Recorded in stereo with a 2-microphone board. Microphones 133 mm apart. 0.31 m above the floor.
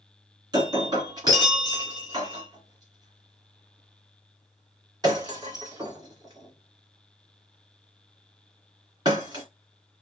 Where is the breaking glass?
30° right (ahead or behind), 2 m.